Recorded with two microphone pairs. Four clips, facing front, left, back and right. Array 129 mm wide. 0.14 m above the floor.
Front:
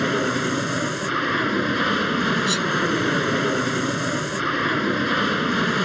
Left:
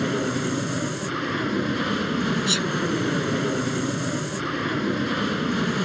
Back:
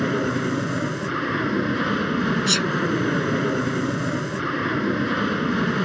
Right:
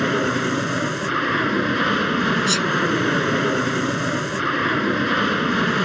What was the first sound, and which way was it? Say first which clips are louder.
An aircraft: right 4 dB, front 1 dB; 60° right.